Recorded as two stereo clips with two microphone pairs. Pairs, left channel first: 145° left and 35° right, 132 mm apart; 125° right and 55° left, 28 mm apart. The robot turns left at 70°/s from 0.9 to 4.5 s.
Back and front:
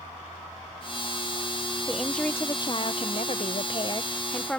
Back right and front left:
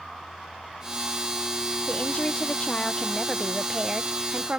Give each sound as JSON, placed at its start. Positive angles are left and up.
{"t": 1.9, "sound": "a woman speaking", "azimuth_deg": -110}